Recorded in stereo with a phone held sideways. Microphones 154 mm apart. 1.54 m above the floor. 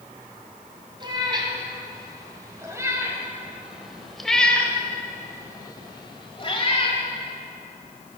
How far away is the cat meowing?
About 2.5 m.